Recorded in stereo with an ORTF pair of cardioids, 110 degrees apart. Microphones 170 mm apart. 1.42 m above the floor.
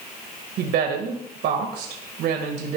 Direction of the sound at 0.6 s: 70° right.